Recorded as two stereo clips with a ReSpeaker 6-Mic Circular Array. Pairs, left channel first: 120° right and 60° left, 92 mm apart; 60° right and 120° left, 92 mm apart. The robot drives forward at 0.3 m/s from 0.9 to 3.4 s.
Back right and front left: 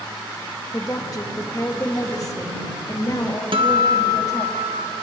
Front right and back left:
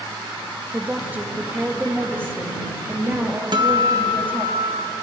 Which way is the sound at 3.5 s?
85° left.